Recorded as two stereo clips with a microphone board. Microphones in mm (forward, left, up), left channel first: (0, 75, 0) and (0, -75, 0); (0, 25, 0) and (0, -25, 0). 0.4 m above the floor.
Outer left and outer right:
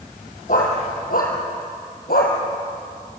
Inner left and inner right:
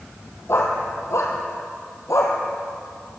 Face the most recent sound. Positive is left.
turn(degrees=85)